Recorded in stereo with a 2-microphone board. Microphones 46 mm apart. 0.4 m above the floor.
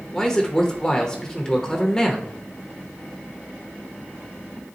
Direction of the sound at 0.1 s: 15° left (ahead or behind).